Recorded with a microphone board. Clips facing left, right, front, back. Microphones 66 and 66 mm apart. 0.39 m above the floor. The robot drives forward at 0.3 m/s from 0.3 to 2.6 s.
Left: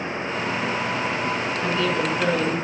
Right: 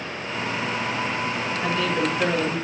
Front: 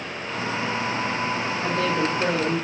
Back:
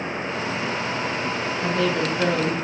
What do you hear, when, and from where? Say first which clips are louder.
1.6 s a woman speaking: even, back 1 dB; straight behind, 6 m